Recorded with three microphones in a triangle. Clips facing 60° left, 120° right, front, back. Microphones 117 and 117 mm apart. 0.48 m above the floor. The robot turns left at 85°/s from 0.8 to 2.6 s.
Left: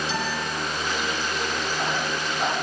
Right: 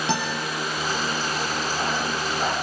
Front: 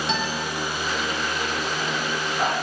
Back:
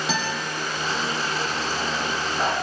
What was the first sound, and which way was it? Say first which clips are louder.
A guitar: right 2 dB, even; 95° right.